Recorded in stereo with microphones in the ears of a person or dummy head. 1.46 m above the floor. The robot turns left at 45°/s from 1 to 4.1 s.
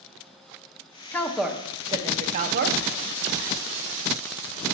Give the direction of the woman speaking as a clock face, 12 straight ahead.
12 o'clock.